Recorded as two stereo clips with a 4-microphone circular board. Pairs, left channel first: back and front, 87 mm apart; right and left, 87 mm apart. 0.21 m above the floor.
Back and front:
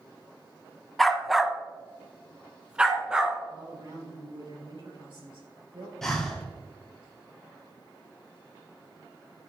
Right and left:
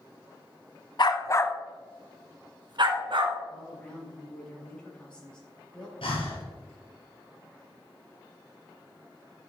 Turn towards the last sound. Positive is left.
turn(degrees=-95)